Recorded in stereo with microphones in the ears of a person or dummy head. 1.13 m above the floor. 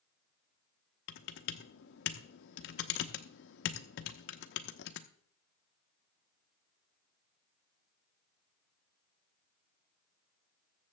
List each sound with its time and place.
1.1 s typing on a keyboard: 65° left (ahead or behind), 0.8 m